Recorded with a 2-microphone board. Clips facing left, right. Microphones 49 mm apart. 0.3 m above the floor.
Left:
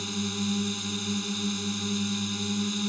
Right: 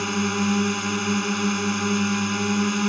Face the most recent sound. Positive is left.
turn(degrees=-55)  # may be behind; listen again after turning